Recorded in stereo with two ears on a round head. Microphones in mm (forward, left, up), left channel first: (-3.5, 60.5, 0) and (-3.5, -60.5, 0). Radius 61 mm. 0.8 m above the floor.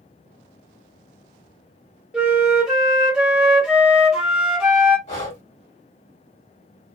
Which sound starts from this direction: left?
Breathing, at 5.1 s.